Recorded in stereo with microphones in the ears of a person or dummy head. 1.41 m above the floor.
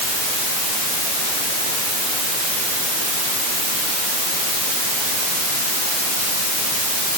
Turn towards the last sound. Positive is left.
No sound to turn to.